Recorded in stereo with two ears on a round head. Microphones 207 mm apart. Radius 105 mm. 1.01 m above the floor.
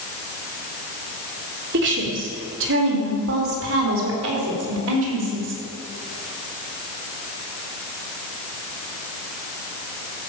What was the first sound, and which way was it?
A woman speaking, 50° right (ahead or behind).